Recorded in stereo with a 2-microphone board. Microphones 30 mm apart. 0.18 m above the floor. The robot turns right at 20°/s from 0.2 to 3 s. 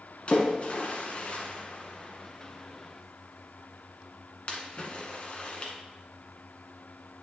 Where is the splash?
40° left (ahead or behind), 1.8 m; by 5.7 s 45° left (ahead or behind), 1.8 m.